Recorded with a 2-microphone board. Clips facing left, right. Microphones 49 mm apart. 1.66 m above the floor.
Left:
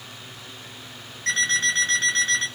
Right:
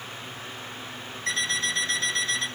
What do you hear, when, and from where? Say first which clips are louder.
1.3 s an alarm clock: left 5 dB; 55° left (ahead or behind), 1.5 m